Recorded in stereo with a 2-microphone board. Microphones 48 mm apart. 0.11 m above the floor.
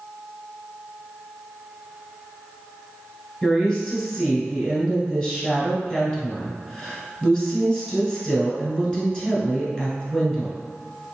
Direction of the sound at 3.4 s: 20° left (ahead or behind).